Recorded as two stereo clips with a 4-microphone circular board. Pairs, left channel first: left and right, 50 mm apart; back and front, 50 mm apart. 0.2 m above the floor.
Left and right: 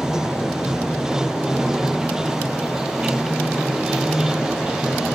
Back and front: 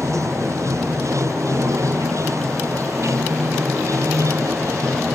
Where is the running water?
10° right.